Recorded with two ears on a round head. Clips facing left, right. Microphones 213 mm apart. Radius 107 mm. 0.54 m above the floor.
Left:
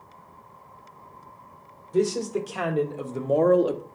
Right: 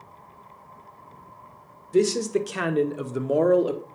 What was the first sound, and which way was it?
A man speaking, 35° right (ahead or behind).